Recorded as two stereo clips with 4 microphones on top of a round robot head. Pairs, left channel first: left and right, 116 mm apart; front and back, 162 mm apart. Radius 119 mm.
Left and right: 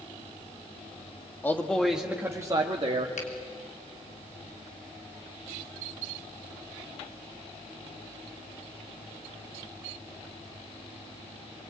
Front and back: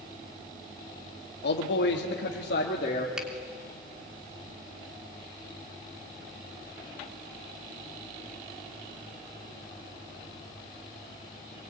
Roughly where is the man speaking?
Ahead.